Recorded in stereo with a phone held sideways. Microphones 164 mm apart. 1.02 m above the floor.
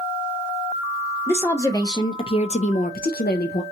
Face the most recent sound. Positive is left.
turn(degrees=65)  # may be behind; listen again after turning